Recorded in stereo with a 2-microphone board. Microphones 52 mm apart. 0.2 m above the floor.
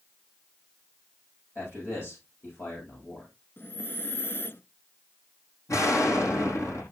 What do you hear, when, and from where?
1.6 s a man speaking: 50° left (ahead or behind), 9.5 m
3.6 s breathing: 45° left (ahead or behind), 0.9 m
5.7 s an explosion: 80° left, 5.5 m